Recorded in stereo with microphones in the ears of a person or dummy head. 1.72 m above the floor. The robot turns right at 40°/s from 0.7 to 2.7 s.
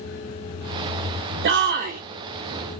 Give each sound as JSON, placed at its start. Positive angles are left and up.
{"t": 1.4, "sound": "a shout", "side_deg": -60, "distance_m": 0.5}